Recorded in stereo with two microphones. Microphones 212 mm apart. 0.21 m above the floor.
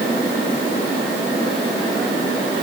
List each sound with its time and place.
Only background noise.